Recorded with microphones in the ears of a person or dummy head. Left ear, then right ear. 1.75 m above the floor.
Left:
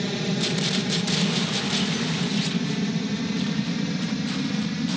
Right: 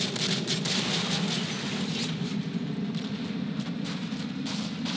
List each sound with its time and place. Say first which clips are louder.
0.0 s an aircraft: left 2 dB; 50° left (ahead or behind); by 5.0 s 70° left (ahead or behind)